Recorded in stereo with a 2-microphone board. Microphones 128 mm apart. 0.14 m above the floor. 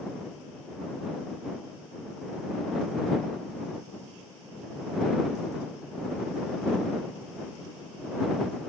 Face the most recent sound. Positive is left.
No sound to turn to.